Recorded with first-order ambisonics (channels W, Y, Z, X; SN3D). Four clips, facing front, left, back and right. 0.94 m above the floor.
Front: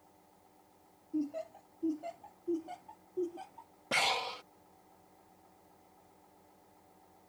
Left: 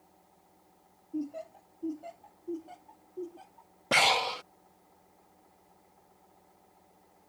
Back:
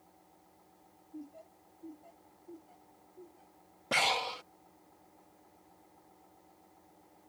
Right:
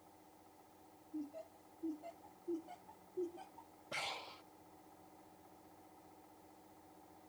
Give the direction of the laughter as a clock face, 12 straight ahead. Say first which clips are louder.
Left 10 dB, front 13 dB; 11 o'clock.